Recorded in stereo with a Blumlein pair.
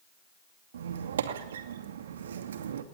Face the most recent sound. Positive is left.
turn(degrees=-65)